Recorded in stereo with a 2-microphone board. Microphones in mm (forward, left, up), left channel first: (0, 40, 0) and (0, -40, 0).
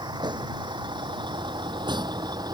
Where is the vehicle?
70° right (ahead or behind); by 2.5 s 60° right (ahead or behind).